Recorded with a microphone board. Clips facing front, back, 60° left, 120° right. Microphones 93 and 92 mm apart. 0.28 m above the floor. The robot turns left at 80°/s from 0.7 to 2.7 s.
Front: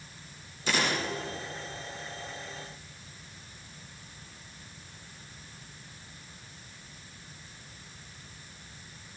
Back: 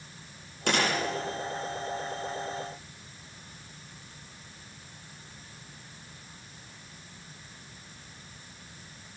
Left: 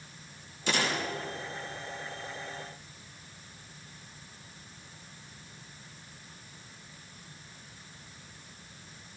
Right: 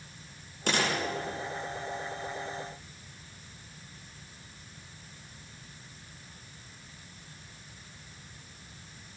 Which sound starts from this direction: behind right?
A gunshot, at 0.7 s.